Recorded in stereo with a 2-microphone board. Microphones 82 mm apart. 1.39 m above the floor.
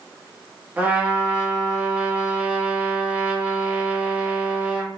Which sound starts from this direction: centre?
A trumpet, at 0.8 s.